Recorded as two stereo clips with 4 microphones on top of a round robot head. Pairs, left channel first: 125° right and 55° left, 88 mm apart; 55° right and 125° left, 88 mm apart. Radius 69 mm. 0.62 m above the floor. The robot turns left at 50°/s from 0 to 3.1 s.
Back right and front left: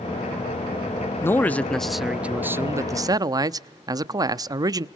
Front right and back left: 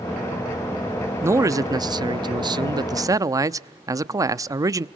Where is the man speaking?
Straight behind, 0.7 m; by 4.8 s 85° left, 0.7 m.